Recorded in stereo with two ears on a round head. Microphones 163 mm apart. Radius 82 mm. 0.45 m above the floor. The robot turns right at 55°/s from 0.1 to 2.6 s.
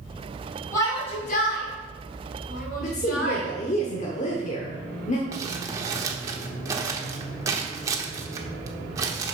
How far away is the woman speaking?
About 1.1 m.